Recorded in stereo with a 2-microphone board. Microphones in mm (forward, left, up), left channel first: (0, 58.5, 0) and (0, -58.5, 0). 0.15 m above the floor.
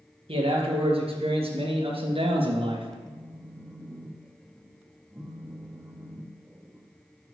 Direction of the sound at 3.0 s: 20° right (ahead or behind).